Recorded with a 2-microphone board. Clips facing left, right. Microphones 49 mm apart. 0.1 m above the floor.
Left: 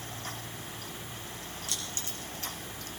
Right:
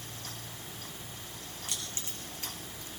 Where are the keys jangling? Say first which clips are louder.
Left 1 dB; 25° right (ahead or behind), 4.5 m; by 2.9 s 15° right (ahead or behind), 3.5 m.